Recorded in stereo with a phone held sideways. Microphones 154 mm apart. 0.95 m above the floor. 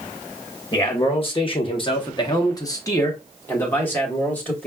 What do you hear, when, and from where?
0.7 s a man speaking: 35° left (ahead or behind), 0.9 m; by 4.7 s 10° left (ahead or behind), 1.8 m